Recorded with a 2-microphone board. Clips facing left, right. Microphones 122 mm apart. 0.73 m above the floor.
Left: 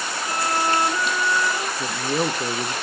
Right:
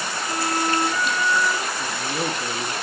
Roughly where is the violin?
Centre.